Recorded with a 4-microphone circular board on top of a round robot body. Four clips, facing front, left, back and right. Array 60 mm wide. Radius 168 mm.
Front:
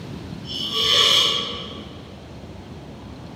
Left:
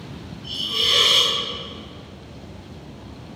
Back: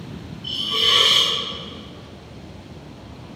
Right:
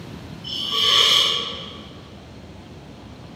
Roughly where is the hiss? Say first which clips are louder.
Right 2 dB, back 2 dB; behind right.